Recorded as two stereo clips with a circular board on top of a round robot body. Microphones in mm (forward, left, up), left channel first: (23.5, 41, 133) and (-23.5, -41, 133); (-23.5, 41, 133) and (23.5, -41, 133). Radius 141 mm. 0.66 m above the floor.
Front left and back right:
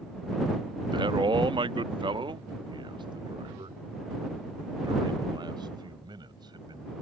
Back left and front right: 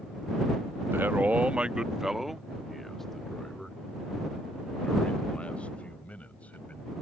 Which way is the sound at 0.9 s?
120° right.